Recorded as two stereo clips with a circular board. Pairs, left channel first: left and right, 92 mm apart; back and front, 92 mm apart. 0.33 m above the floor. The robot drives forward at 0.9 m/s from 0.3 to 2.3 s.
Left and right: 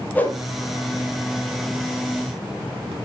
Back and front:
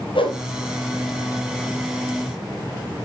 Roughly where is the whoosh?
Behind.